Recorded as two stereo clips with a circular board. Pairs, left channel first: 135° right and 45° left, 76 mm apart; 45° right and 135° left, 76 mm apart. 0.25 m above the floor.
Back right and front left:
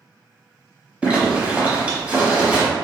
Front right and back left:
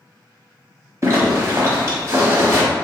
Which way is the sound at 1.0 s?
110° left.